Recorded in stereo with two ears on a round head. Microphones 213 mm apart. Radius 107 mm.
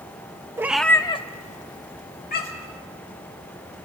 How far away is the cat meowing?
About 0.8 m.